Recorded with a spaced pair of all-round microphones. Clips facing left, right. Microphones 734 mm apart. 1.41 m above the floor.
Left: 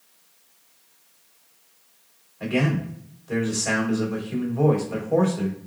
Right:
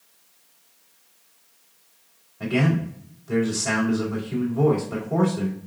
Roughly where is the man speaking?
Right.